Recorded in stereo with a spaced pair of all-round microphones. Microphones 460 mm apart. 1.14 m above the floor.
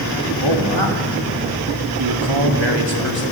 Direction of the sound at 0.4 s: 70° right (ahead or behind).